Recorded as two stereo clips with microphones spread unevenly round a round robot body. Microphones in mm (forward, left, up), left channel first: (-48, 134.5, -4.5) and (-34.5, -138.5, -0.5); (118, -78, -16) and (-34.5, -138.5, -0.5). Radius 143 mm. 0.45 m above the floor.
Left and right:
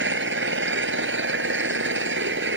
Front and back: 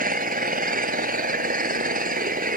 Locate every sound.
0.0 s an engine running: 130° right